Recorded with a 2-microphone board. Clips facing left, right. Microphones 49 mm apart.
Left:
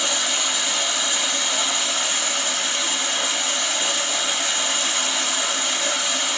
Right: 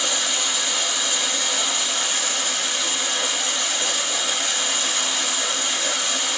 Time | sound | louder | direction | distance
0.0 | running water | left 1 dB | 5° left (ahead or behind) | 1.3 m